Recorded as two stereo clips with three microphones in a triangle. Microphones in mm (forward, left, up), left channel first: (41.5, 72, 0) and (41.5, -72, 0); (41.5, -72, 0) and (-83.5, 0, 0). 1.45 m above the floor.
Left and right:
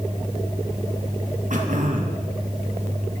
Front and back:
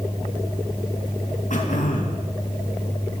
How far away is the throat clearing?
About 2.5 m.